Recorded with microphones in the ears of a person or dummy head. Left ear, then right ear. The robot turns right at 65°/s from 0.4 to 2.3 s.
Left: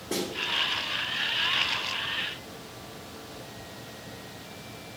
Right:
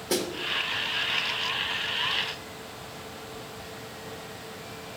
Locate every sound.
0.1 s a snare drum: 65° right (ahead or behind), 1.5 m